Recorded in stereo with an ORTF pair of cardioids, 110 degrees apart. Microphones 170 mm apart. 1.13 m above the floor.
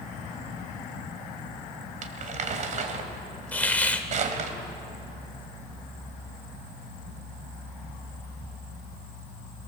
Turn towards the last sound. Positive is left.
turn(degrees=10)